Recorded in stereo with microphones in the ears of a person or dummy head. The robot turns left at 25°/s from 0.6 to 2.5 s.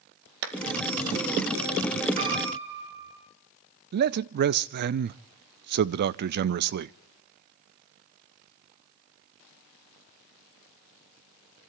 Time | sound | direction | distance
0.4 | a clap | 70° right (ahead or behind) | 2 m
2.2 | a piano | 45° right (ahead or behind) | 7.5 m
3.9 | a man speaking | 50° right (ahead or behind) | 0.6 m